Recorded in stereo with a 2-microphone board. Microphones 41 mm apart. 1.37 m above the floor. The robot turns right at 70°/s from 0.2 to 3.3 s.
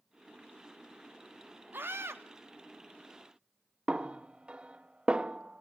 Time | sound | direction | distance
1.7 | a scream | 125° right | 3 m
3.9 | a snare drum | 20° right (ahead or behind) | 0.9 m